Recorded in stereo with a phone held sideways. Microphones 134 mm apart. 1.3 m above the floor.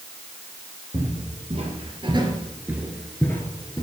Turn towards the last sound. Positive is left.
turn(degrees=35)  # may be behind; listen again after turning